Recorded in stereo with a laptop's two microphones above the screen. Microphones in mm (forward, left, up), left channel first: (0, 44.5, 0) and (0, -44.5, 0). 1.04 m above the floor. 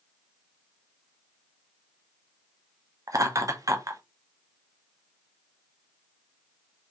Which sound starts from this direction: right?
Laughter, at 3.1 s.